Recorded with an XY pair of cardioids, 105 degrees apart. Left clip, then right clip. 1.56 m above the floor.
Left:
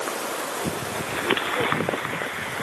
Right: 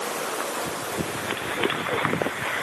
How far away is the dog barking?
I don't hear a dog barking.